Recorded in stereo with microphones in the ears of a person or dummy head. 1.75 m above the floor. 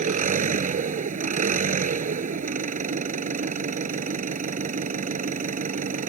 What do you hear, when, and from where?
0.0 s an engine running: 45° right (ahead or behind)